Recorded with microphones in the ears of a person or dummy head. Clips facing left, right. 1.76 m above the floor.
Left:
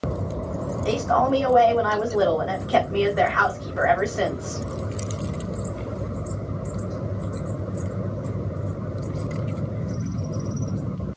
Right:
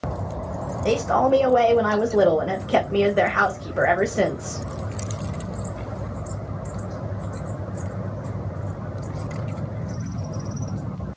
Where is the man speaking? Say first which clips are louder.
Right 2 dB; 35° right (ahead or behind), 1.8 m.